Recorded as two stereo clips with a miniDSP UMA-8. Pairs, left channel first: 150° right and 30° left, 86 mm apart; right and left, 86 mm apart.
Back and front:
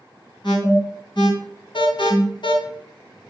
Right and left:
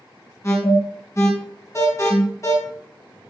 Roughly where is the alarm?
Behind right.